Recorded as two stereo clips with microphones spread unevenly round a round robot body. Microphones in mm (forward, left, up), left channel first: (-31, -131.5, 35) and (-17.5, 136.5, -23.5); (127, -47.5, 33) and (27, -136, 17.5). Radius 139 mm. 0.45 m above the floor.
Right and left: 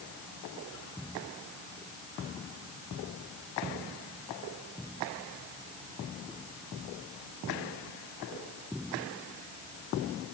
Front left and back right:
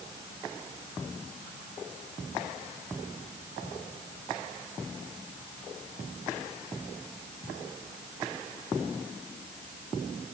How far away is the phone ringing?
I don't hear a phone ringing.